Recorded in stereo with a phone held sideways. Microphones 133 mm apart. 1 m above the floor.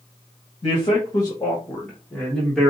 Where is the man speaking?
40° left (ahead or behind), 1.3 m; by 2.7 s 5° left (ahead or behind), 1.9 m.